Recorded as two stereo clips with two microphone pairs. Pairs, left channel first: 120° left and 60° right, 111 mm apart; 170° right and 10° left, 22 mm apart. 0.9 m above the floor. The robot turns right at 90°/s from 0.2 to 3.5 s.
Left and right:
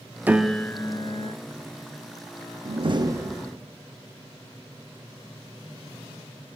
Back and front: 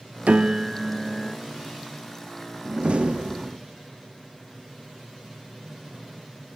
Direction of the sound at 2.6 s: 40° right.